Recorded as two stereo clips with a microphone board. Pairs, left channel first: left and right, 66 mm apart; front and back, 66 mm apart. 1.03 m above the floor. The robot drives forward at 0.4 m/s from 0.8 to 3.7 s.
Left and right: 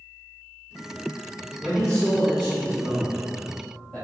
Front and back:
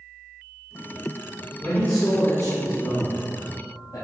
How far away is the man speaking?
About 1.8 m.